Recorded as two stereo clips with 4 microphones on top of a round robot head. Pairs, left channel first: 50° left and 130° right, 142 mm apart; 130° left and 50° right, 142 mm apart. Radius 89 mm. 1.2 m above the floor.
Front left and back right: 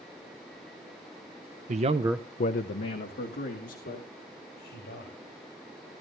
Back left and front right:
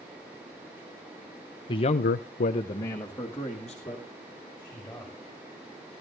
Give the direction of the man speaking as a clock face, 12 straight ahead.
6 o'clock.